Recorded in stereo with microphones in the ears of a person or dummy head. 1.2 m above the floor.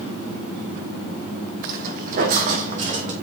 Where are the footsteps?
50° right (ahead or behind), 3 m; by 3.1 s 40° right (ahead or behind), 4.5 m.